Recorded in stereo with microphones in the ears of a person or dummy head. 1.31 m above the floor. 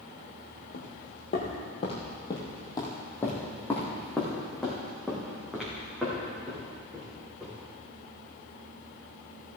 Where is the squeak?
I don't hear a squeak.